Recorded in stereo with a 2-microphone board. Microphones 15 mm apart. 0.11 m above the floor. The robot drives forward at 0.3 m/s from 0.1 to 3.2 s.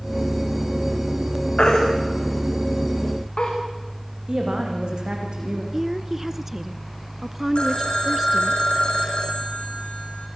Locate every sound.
1.6 s a baby crying: 75° left (ahead or behind), 7.5 m; by 3.5 s 80° left, 7.5 m
4.3 s a woman speaking: 65° right (ahead or behind), 8 m
5.7 s a woman speaking: 25° right (ahead or behind), 1.1 m
7.5 s a phone ringing: 75° left (ahead or behind), 4 m